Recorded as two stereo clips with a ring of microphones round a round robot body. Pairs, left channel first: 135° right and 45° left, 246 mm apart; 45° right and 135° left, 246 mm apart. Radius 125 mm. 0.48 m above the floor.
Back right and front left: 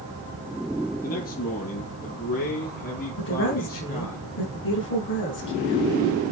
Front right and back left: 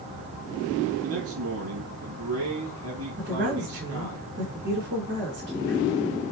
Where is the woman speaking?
175° right, 5.5 m.